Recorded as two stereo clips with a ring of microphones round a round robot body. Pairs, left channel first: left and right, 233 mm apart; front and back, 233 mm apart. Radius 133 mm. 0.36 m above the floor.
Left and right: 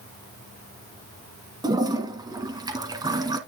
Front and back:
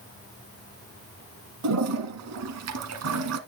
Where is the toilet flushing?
165° right, 1.3 m.